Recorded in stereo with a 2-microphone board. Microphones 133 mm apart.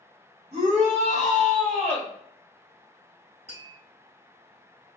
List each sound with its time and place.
0.5 s a shout: 50° right (ahead or behind), 2.5 m; by 2.1 s 55° right (ahead or behind), 2.0 m
3.5 s tapping: 50° right (ahead or behind), 2.5 m